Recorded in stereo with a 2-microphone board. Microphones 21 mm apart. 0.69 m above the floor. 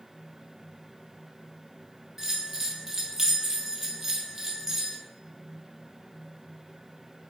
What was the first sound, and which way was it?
A bell, 20° right (ahead or behind).